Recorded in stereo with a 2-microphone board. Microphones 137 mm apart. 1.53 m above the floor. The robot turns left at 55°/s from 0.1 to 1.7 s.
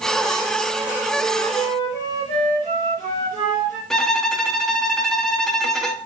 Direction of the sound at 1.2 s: 50° left (ahead or behind).